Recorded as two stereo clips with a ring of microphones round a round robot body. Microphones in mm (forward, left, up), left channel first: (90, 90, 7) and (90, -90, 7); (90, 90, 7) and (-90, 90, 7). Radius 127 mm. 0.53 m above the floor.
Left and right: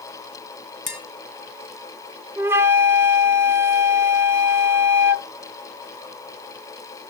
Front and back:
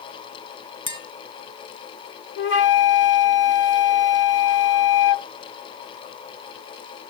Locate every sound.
0.9 s tapping: 60° left, 4 m
2.4 s a flute: 15° right, 1.1 m